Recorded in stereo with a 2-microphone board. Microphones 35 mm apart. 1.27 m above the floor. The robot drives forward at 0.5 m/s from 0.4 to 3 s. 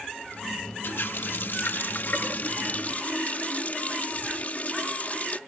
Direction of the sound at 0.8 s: 75° left (ahead or behind).